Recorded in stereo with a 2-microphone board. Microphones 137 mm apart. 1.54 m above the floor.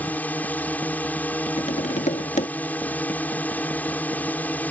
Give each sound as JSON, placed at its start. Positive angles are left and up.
{"t": 0.0, "sound": "a drone", "side_deg": 10}
{"t": 1.6, "sound": "tapping", "side_deg": 60}